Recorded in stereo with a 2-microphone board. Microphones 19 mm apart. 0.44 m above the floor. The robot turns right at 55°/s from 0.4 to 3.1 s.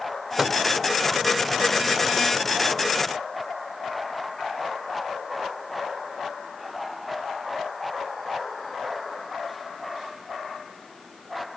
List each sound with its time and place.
0.4 s a microwave: 10° right (ahead or behind), 0.9 m; by 0.6 s 20° right (ahead or behind), 0.9 m